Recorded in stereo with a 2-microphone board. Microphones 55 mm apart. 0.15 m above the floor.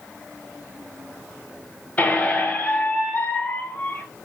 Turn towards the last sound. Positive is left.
turn(degrees=25)  # may be behind; listen again after turning